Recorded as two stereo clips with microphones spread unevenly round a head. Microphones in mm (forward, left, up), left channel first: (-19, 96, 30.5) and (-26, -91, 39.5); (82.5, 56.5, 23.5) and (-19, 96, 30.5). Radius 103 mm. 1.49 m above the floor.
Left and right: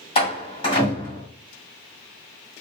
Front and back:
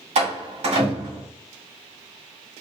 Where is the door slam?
150° left, 1.9 m.